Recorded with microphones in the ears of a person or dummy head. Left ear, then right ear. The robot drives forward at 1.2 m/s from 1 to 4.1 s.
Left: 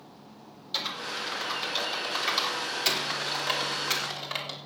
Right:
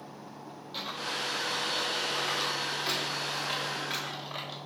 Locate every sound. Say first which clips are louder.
0.7 s typing on a keyboard: left 2 dB; 50° left (ahead or behind), 5 m; by 4.6 s 80° left, 4 m